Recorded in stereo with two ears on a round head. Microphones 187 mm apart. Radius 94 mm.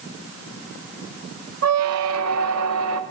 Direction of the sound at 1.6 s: 75° right (ahead or behind).